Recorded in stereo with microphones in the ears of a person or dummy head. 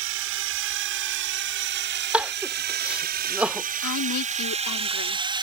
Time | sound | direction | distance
0.0 | a drone | 65° right (ahead or behind) | ?
2.1 | crying | 5° right (ahead or behind) | ?
3.8 | a woman speaking | 80° left | ?